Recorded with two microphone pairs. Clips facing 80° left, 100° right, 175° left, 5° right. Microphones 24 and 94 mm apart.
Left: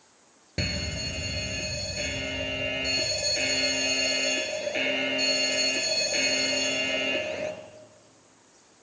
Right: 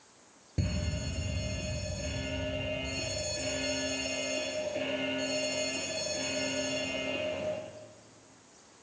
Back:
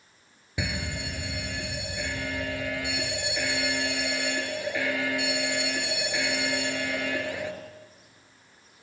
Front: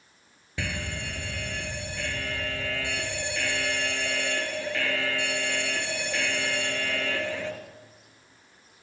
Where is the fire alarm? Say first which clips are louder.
Left 6 dB, back 1 dB; 105° left, 3.5 m.